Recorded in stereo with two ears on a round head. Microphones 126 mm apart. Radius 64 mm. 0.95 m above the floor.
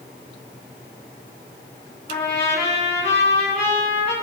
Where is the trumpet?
40° left (ahead or behind), 5 m.